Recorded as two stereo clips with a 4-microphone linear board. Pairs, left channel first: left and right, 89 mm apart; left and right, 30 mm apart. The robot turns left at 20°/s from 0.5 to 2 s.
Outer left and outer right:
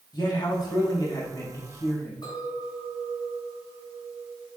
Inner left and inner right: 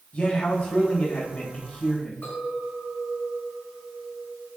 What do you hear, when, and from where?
0.1 s a man speaking: 60° left, 3 m; by 2.1 s 30° left, 3 m
2.2 s a clink: 50° left (ahead or behind), 3.5 m